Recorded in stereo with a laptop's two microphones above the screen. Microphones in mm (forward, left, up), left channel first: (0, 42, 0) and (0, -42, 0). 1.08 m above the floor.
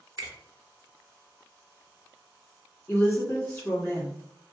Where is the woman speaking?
15° left (ahead or behind), 1.4 m.